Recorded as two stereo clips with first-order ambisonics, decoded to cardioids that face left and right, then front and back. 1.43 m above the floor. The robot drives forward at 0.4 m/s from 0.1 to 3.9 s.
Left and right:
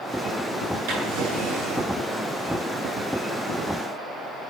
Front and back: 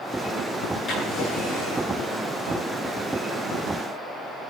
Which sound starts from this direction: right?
A drawer, at 0.9 s.